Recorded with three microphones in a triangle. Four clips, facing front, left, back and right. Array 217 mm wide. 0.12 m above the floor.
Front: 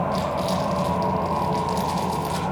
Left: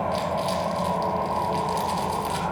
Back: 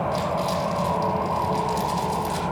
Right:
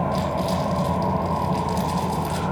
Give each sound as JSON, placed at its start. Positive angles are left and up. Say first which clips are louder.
{"t": 0.1, "sound": "crumpling", "louder": "right 2 dB, even", "azimuth_deg": 15, "distance_m": 4.0}